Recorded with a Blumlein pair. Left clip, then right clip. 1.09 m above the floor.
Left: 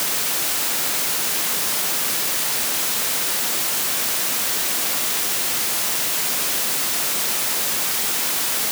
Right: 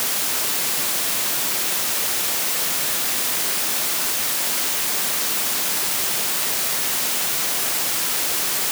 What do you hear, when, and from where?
Only background noise.